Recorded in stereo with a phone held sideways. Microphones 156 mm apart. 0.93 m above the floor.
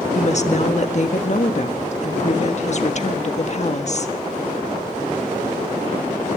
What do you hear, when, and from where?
0.1 s a woman speaking: 50° left (ahead or behind), 1.4 m